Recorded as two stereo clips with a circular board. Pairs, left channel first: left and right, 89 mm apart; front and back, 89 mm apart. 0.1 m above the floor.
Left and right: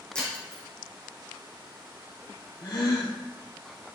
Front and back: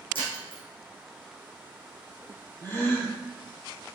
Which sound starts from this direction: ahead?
Breaking glass, at 0.1 s.